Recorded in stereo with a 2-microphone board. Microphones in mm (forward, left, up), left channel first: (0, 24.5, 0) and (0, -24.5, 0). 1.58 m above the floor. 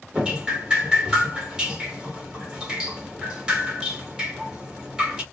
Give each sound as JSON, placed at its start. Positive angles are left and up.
{"t": 0.1, "sound": "dripping", "side_deg": -15, "distance_m": 1.9}